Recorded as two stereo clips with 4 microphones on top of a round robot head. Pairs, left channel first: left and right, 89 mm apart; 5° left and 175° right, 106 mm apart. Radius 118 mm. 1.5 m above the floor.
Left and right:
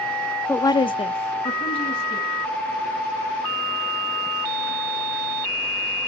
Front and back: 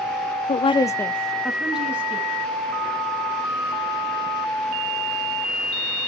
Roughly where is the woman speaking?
Ahead.